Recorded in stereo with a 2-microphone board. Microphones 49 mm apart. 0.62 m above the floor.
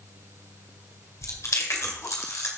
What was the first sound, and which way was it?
Chewing, 70° left (ahead or behind).